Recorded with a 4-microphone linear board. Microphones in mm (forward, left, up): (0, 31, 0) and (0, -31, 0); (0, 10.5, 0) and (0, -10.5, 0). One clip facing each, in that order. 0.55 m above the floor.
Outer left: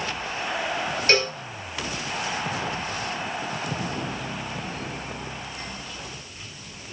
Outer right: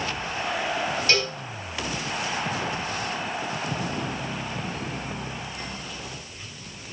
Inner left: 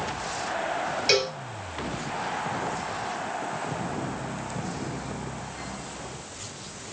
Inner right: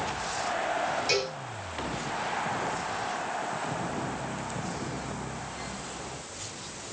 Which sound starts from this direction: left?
A cowbell, at 1.1 s.